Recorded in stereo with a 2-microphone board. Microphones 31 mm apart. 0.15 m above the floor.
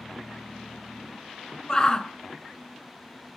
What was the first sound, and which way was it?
A shout, 25° left (ahead or behind).